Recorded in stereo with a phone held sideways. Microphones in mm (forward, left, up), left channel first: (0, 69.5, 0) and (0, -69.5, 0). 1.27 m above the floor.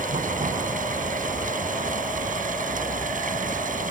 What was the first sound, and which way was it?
Running water, 75° right (ahead or behind).